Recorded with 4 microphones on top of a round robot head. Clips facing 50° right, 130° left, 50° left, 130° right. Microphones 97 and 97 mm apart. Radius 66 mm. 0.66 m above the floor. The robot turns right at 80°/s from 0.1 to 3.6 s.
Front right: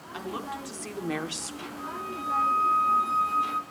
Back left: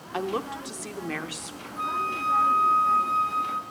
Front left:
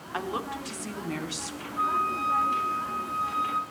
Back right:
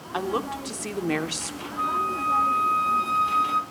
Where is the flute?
145° left, 2.0 m; by 3.6 s 70° right, 2.0 m.